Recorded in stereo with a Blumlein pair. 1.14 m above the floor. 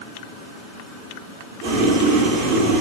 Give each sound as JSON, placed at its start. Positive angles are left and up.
{"t": 1.6, "sound": "boiling", "azimuth_deg": -35, "distance_m": 3.0}